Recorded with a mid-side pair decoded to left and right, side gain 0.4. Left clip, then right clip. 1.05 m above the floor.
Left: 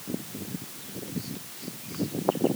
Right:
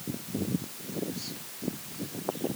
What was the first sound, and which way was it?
Only background noise.